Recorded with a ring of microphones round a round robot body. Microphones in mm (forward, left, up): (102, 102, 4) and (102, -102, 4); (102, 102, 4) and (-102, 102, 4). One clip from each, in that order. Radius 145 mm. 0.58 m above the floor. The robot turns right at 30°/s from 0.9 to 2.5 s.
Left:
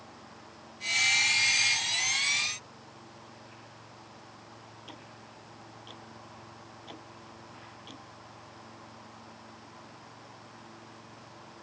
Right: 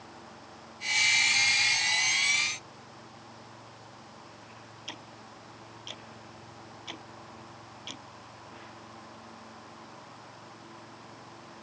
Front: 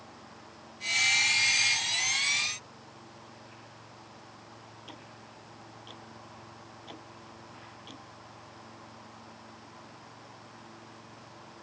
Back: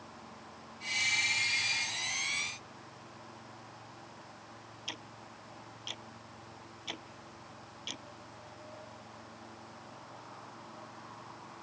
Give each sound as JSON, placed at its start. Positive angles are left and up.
{"t": 4.9, "sound": "ticking", "azimuth_deg": -150}